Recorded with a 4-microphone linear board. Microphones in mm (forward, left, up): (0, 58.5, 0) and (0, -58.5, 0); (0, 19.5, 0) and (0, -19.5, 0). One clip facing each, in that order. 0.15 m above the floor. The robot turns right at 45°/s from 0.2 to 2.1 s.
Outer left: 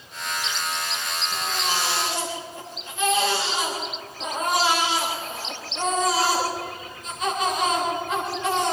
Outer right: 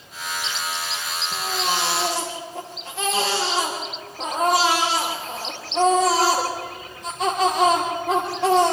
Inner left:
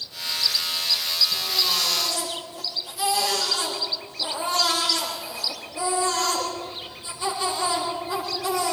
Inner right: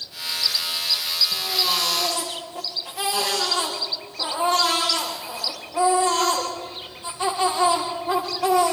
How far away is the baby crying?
About 9 m.